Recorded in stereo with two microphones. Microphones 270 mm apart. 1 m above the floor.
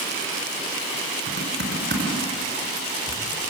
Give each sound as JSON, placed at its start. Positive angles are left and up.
{"t": 1.3, "sound": "typing on a keyboard", "side_deg": -45, "distance_m": 4.0}